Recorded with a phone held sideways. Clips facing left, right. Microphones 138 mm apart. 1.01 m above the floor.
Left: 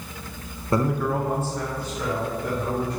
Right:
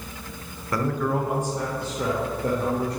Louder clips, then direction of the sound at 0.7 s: Left 2 dB; 25° left (ahead or behind).